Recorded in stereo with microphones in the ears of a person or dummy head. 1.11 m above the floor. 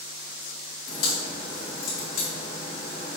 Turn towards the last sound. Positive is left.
turn(degrees=50)  # may be behind; listen again after turning